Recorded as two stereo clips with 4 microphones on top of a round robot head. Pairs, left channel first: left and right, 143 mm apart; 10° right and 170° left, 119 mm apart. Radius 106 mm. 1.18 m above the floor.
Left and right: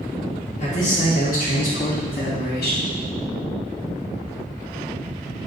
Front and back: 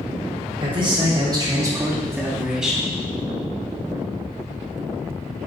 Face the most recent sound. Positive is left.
turn(degrees=80)